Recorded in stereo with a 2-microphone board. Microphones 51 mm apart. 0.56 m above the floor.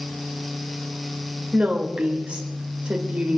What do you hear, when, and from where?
1.5 s a woman speaking: 25° right (ahead or behind), 2.5 m